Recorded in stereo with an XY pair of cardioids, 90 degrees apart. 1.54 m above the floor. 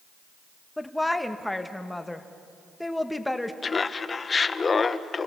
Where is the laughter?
35° left, 1.0 m.